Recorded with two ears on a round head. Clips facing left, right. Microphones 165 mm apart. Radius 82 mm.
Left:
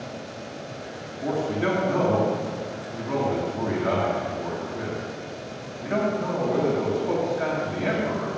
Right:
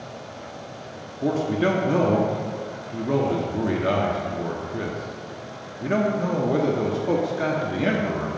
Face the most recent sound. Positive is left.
turn(degrees=-40)  # may be behind; listen again after turning